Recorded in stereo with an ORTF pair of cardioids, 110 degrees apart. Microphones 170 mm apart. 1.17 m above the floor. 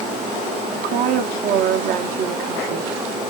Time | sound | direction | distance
0.7 | a woman speaking | 70° right | 0.9 m